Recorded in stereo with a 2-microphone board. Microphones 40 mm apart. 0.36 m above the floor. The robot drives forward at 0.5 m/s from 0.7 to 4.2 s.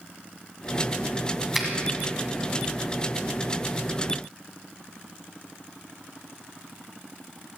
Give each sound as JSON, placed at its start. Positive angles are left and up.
{"t": 1.5, "sound": "a finger snap", "side_deg": -5, "distance_m": 2.0}